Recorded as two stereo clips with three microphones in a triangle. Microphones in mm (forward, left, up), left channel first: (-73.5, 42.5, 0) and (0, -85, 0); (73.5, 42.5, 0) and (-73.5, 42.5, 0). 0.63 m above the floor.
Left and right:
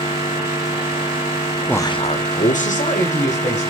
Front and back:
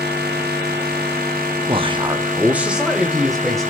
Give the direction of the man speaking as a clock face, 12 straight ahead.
5 o'clock.